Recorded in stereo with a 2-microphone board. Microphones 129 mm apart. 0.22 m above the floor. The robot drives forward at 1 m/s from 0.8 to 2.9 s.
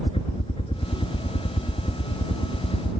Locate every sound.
0.0 s a helicopter: 45° left (ahead or behind); by 3.0 s 50° left (ahead or behind)